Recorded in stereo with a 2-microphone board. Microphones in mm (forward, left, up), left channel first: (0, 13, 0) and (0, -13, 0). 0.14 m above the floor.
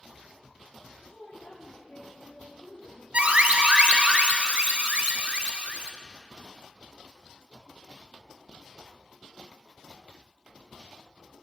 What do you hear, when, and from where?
0.9 s a woman speaking: 75° left (ahead or behind), 5.5 m
3.1 s an alarm: 50° right (ahead or behind), 1.4 m